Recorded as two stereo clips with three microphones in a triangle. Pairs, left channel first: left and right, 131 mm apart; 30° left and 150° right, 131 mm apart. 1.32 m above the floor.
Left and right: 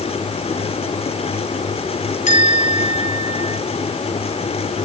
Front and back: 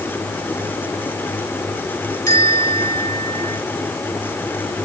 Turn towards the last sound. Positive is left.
turn(degrees=95)